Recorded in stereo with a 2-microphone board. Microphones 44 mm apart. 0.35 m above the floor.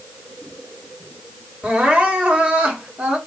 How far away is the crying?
About 1.5 m.